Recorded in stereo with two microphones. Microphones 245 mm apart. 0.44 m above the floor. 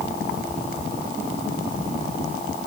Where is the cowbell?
No cowbell in this recording.